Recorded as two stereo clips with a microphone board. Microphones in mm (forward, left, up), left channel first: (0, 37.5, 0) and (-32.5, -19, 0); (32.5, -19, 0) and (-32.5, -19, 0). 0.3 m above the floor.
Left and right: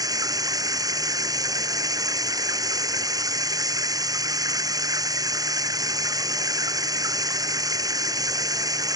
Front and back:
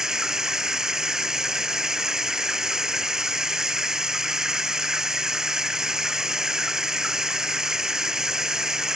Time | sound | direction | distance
0.0 | running water | 95° right | ?